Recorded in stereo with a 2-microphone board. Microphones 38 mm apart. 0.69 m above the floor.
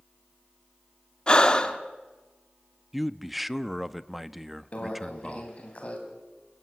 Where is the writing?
No writing in this recording.